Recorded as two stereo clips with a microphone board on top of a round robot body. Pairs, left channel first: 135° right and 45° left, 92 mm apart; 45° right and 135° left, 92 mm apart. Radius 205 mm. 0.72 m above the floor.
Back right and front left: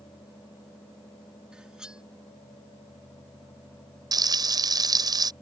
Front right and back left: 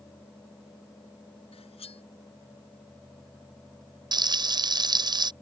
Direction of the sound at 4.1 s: 90° left.